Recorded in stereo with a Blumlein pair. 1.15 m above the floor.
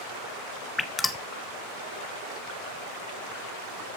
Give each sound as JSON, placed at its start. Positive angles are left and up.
{"t": 0.8, "sound": "dripping", "azimuth_deg": 10, "distance_m": 0.8}